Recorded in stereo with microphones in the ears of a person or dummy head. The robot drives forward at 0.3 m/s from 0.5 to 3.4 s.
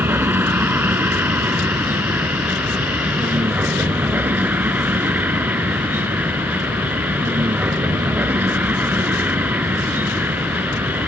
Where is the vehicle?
15° right (ahead or behind).